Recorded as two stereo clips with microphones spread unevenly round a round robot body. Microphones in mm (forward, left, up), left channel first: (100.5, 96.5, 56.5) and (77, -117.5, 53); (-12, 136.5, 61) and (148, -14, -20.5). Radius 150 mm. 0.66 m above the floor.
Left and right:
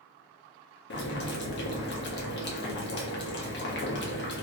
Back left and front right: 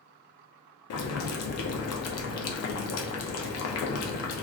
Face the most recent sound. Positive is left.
turn(degrees=115)